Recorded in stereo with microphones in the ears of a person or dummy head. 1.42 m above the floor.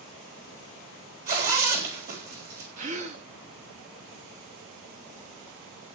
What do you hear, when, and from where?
1.3 s a zipper: 50° right (ahead or behind), 3.5 m
2.8 s a gasp: 35° right (ahead or behind), 1.1 m